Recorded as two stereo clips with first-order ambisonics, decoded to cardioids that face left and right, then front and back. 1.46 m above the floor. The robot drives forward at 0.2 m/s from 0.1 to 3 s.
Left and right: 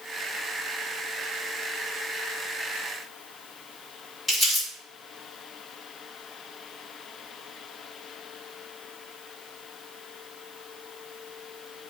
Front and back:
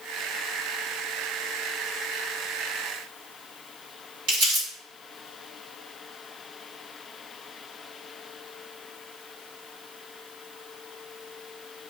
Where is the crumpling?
175° right, 1.7 m.